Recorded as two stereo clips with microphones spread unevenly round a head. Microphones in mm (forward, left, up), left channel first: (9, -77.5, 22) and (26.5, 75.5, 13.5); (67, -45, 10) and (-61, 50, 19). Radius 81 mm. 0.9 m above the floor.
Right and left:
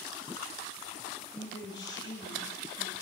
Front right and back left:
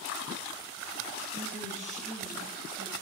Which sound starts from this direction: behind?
A woman speaking, at 1.3 s.